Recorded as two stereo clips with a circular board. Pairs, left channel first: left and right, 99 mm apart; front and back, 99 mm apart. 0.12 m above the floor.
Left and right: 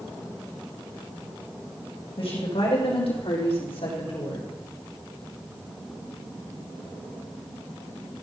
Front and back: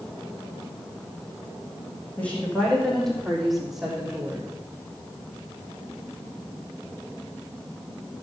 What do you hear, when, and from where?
2.2 s a woman speaking: 75° left, 5 m; by 4.5 s 100° left, 4 m